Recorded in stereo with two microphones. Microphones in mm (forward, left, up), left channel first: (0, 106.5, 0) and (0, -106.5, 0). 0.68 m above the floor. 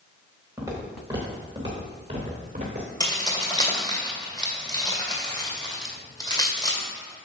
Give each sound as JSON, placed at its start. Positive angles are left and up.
{"t": 0.6, "sound": "footsteps", "side_deg": -10, "distance_m": 3.0}
{"t": 3.0, "sound": "keys jangling", "side_deg": 20, "distance_m": 1.9}